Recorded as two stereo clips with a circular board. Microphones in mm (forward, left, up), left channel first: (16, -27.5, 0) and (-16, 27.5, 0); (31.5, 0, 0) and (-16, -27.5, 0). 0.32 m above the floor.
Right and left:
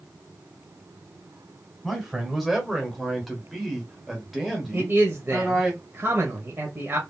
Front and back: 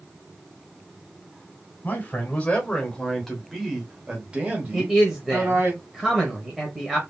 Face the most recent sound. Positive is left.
turn(degrees=130)